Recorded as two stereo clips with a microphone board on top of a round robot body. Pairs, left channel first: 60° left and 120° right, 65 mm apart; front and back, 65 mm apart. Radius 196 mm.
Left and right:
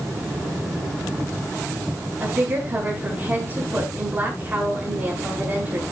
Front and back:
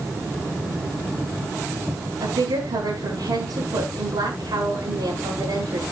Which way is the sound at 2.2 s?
Straight behind.